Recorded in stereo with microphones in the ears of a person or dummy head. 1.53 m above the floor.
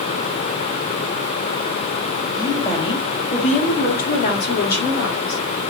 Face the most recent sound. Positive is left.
turn(degrees=75)  # may be behind; listen again after turning